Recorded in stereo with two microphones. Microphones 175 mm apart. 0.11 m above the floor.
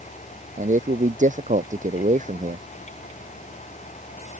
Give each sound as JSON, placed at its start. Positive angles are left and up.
{"t": 0.6, "sound": "a man speaking", "side_deg": -45}